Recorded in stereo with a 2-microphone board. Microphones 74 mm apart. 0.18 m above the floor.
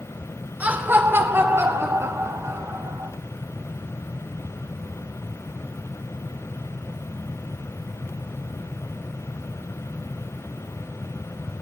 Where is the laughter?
20° right (ahead or behind), 2.5 m; by 3.1 s 45° right (ahead or behind), 6 m.